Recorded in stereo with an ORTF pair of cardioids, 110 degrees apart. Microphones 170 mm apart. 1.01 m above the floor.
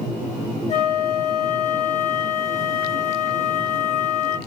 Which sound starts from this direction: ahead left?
A flute, at 0.7 s.